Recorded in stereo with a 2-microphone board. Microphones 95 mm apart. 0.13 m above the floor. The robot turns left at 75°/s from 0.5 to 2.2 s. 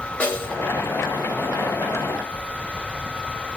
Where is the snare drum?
15° left (ahead or behind), 2 m; by 0.7 s 25° left (ahead or behind), 2 m.